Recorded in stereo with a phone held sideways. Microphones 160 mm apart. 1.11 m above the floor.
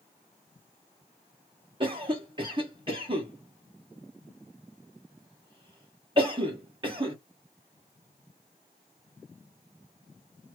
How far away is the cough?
About 0.9 m.